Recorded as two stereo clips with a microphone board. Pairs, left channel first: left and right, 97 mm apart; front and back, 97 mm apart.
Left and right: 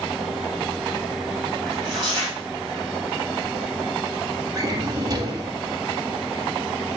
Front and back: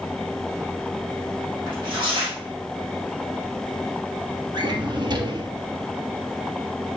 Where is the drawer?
140° right, 1.4 m.